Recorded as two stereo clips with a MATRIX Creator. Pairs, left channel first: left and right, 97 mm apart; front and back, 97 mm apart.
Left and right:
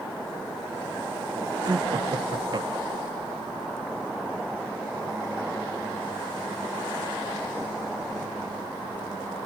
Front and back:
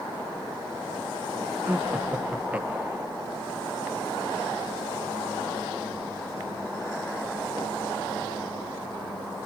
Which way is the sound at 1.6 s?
110° right.